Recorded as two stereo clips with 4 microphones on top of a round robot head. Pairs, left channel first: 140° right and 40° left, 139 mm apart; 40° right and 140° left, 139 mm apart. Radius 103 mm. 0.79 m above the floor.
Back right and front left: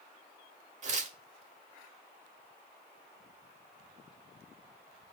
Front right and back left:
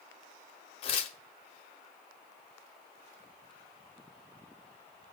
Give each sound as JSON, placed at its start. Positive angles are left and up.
{"t": 0.8, "sound": "tearing paper", "azimuth_deg": 5, "distance_m": 0.7}